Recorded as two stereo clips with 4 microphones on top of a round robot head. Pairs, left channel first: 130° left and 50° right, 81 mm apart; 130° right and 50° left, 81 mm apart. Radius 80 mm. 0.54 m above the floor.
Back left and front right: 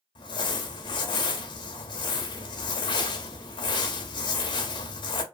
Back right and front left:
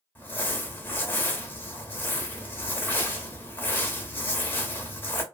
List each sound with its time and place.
0.1 s crumpling: 160° left, 0.6 m